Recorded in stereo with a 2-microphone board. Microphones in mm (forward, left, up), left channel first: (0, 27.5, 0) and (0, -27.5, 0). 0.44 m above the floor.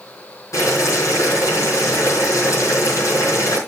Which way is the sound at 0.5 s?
70° left (ahead or behind).